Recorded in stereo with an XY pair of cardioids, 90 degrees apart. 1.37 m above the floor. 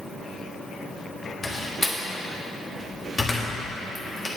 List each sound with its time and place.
1.4 s a door slam: 25° left, 1.7 m